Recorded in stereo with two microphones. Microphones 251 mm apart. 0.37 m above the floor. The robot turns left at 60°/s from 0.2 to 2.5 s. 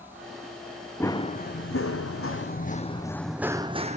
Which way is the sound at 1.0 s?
5° left (ahead or behind).